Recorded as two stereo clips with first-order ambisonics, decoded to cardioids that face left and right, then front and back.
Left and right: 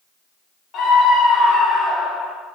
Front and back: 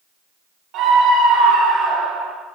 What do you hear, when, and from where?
0.7 s a scream: 135° left, 1.6 m; by 2.3 s 170° left, 2 m